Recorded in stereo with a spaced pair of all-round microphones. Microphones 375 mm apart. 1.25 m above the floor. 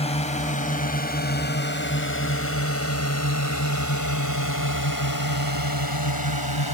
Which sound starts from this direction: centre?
A drone, at 0.0 s.